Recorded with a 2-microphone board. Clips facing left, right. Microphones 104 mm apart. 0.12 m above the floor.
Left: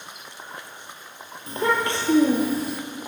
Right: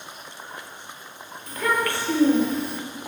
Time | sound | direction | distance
1.5 | a child speaking | 30° left (ahead or behind) | 2.0 m